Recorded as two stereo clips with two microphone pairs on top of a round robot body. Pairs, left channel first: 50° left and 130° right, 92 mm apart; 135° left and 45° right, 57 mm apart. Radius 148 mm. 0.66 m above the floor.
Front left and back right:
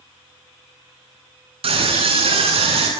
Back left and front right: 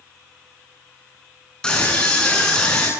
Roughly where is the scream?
Behind right.